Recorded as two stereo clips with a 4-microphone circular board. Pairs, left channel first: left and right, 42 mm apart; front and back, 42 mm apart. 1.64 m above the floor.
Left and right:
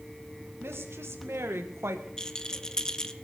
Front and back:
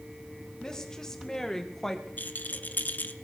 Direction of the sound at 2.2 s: 20° left.